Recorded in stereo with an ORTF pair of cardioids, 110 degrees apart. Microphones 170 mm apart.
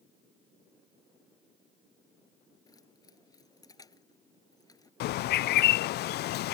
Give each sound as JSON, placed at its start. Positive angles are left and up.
{"t": 2.7, "sound": "keys jangling", "azimuth_deg": 20}
{"t": 5.0, "sound": "a bird", "azimuth_deg": 65}